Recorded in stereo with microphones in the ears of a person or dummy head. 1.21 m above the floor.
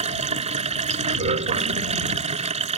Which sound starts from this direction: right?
Running water, at 0.0 s.